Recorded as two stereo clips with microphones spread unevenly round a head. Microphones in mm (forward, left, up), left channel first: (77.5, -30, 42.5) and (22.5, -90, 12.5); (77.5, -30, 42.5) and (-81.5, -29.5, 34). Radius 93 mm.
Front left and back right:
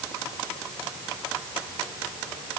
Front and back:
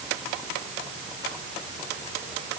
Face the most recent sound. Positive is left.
No sound to turn to.